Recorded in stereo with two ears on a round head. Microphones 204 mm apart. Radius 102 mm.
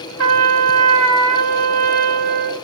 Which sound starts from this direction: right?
A trumpet, at 0.2 s.